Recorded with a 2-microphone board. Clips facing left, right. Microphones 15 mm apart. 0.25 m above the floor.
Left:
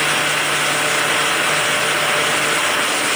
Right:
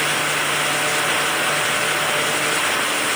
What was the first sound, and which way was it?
Only background noise.